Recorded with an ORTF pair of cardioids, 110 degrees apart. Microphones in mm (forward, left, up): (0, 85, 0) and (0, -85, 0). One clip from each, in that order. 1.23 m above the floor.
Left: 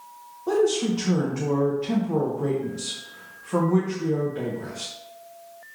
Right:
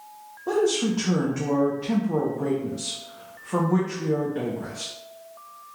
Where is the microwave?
No microwave in this recording.